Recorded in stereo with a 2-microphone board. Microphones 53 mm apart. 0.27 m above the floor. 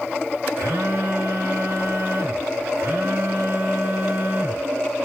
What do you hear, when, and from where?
0.6 s a phone buzzing: 55° right (ahead or behind), 2 m